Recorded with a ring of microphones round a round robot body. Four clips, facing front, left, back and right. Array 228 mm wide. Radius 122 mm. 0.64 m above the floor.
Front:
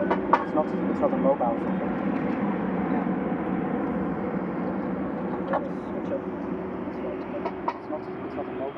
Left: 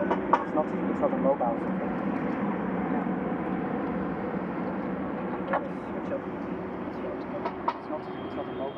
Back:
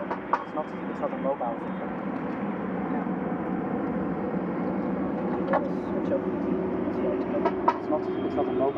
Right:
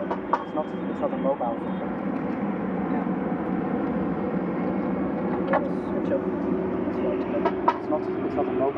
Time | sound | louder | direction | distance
0.0 | an aircraft | left 1 dB, front 6 dB | 10° left | ?